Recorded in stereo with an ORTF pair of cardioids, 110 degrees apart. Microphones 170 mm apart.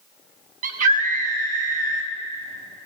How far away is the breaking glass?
I don't hear breaking glass.